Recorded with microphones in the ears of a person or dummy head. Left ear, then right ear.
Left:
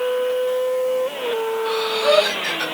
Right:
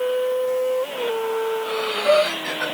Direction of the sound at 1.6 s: 55° left (ahead or behind).